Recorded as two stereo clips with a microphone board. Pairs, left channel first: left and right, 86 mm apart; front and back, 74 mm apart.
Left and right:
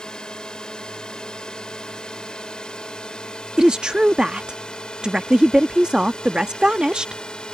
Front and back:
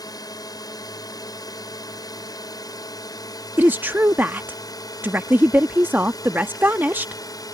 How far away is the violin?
I don't hear a violin.